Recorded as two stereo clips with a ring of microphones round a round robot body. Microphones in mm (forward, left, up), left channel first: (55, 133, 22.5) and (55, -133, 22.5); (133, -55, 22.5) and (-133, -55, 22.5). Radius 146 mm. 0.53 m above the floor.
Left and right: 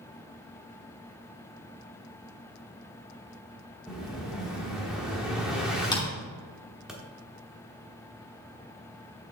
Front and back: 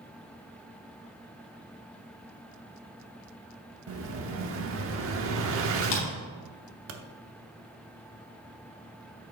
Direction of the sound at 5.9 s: 15° left.